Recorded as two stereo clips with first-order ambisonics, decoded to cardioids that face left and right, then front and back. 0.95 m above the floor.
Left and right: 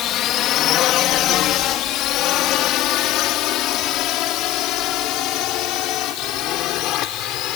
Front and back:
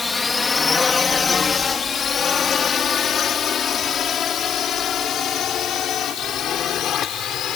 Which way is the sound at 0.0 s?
80° left.